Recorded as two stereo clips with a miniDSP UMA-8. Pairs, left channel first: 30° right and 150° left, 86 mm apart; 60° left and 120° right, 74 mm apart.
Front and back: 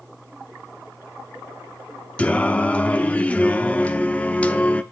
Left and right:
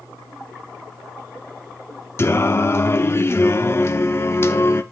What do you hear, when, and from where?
2.2 s singing: 35° left, 0.5 m